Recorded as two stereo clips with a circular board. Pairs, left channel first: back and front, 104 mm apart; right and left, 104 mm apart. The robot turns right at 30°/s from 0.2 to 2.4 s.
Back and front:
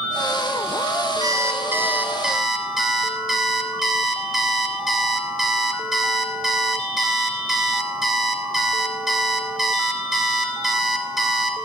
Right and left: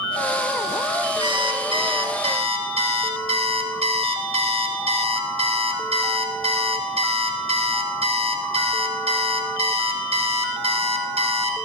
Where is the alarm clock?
55° left, 1.7 m; by 11.7 s 90° left, 1.7 m.